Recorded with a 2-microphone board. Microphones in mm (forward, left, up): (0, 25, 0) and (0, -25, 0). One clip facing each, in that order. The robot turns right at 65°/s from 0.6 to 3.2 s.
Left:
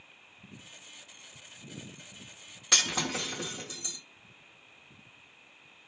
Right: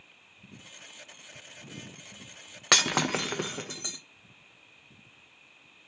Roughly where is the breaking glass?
Right.